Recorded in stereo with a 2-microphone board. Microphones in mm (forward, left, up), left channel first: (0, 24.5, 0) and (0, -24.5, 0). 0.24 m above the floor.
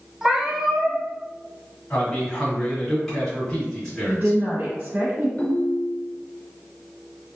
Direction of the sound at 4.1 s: 40° right (ahead or behind).